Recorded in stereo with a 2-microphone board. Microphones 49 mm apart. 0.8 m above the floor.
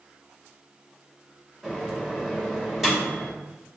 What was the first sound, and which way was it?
A microwave, 5° right (ahead or behind).